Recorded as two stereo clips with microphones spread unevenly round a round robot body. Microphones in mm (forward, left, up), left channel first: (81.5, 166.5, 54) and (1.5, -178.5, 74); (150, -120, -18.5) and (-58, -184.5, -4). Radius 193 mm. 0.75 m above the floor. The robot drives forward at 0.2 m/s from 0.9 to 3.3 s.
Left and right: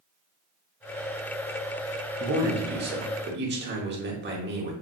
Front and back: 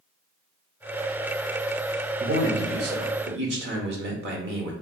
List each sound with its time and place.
2.2 s a man speaking: 150° right, 0.6 m; by 4.7 s 160° right, 0.7 m